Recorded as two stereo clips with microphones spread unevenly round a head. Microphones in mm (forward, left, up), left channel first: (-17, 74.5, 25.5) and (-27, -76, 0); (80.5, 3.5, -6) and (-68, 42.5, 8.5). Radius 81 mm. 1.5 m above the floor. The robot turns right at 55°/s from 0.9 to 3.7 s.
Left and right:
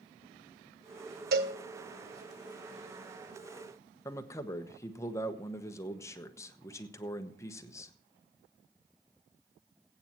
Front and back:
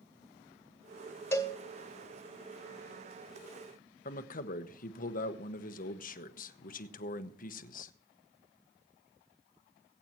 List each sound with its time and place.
1.3 s a cowbell: 90° right, 1.6 m; by 1.6 s 75° right, 1.6 m
4.0 s a man speaking: 15° left, 0.9 m